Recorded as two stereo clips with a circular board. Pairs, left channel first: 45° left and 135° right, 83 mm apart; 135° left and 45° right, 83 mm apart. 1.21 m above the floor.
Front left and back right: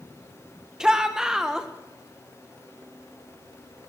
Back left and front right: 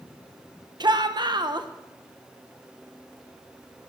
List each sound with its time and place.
0.8 s a shout: 55° right, 1.2 m